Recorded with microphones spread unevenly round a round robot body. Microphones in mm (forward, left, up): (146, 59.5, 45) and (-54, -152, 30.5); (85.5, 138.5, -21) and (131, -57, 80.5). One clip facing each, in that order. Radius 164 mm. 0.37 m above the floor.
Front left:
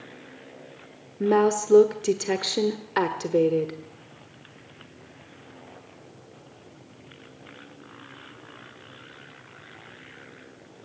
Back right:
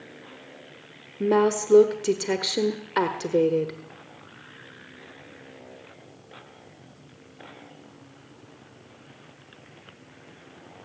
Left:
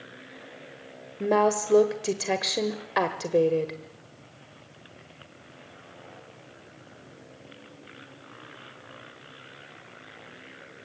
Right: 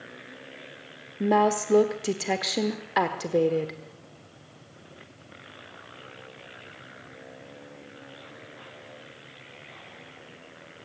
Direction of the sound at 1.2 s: 145° left.